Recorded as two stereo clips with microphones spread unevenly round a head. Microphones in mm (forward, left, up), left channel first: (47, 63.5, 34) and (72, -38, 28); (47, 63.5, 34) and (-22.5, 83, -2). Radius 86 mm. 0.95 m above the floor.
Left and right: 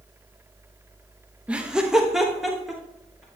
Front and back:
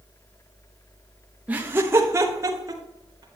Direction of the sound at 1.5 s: 150° right.